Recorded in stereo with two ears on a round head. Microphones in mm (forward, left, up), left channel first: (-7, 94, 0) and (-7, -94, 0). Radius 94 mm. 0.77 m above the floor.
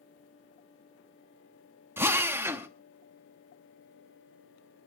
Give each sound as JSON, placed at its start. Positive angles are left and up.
{"t": 2.0, "sound": "a drill", "side_deg": -10, "distance_m": 0.9}